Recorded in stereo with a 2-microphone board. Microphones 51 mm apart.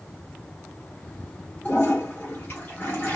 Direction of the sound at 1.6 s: 45° left (ahead or behind).